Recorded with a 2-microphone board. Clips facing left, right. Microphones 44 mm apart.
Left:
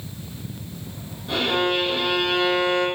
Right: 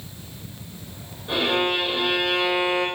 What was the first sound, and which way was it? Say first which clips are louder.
A violin: even; 15° right (ahead or behind).